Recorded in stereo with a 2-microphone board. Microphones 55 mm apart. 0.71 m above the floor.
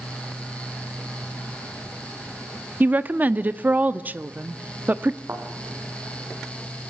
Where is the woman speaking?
35° right (ahead or behind), 1.0 m.